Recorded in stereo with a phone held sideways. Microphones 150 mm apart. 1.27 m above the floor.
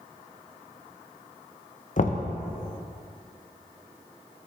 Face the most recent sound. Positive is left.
turn(degrees=55)  # may be behind; listen again after turning